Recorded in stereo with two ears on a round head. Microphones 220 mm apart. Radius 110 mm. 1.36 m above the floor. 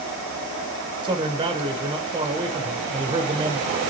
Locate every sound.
1.0 s a man speaking: 20° right (ahead or behind), 1.0 m